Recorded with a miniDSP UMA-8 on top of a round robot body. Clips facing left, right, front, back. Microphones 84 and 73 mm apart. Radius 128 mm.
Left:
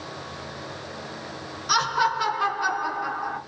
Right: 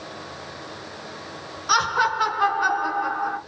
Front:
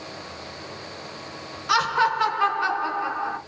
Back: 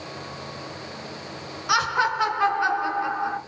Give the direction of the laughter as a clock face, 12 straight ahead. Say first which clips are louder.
Right 2 dB, front 1 dB; 3 o'clock.